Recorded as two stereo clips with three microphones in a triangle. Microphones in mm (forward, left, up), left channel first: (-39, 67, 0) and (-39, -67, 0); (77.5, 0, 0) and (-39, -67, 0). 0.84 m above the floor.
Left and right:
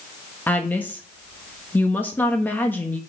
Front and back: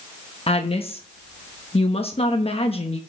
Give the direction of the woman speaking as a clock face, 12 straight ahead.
11 o'clock.